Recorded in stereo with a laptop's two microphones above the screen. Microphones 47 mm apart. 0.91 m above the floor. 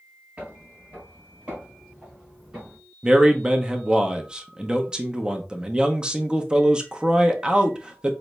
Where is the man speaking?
15° right (ahead or behind), 0.6 m.